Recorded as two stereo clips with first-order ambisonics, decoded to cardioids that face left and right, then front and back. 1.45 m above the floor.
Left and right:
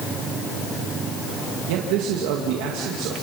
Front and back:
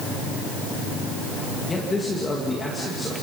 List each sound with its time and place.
1.7 s a man speaking: 80° right, 2 m